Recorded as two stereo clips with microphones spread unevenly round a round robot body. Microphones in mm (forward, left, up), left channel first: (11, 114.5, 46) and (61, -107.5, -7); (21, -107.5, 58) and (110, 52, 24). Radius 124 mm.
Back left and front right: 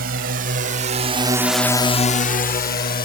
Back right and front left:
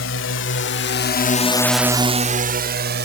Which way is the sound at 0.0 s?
125° right.